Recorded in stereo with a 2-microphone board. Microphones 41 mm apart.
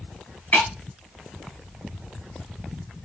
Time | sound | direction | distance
0.5 | breaking glass | 45° left (ahead or behind) | 4.5 m